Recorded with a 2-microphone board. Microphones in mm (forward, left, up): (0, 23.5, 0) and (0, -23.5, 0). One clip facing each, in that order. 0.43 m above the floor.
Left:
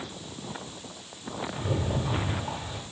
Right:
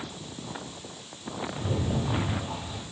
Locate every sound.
1.5 s a rattle: 10° left (ahead or behind), 1.8 m